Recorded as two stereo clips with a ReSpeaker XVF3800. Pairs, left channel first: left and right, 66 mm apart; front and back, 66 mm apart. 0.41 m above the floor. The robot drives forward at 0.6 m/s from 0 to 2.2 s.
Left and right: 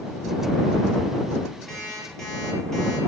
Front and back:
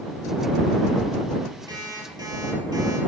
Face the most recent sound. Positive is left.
turn(degrees=175)